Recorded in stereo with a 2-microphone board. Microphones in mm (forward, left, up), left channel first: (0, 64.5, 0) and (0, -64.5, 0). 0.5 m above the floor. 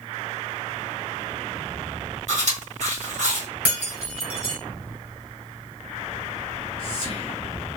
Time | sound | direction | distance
2.3 | chewing | 65° right (ahead or behind) | 1.7 m
3.6 | breaking glass | 15° right (ahead or behind) | 1.5 m
6.4 | whispering | 40° left (ahead or behind) | 0.9 m